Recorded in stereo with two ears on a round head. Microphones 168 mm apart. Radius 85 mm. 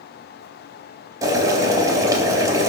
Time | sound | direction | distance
1.2 | boiling | 20° right (ahead or behind) | 3 m